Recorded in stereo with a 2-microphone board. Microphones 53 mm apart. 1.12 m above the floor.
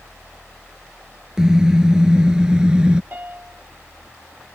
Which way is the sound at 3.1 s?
35° right (ahead or behind).